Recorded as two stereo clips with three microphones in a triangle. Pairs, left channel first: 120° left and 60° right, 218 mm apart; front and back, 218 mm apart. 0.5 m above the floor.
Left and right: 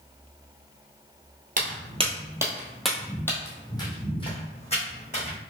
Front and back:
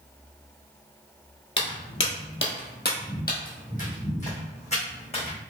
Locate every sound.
1.6 s footsteps: 15° right, 0.9 m; by 5.4 s 60° left, 2 m